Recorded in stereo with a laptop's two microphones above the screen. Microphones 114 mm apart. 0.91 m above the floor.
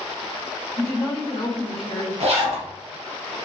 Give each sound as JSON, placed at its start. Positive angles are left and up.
{"t": 0.8, "sound": "a woman speaking", "side_deg": 60, "distance_m": 1.6}
{"t": 2.2, "sound": "a zipper", "side_deg": -60, "distance_m": 1.1}